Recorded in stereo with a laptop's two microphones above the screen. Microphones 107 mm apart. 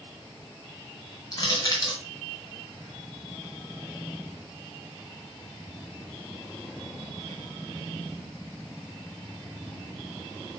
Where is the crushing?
35° left (ahead or behind), 3 m.